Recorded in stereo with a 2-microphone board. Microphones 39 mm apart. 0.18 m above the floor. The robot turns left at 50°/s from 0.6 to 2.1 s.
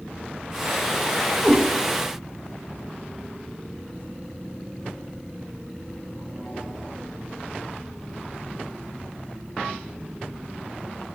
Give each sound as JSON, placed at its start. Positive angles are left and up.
{"t": 1.4, "sound": "a cat meowing", "side_deg": 70, "distance_m": 2.0}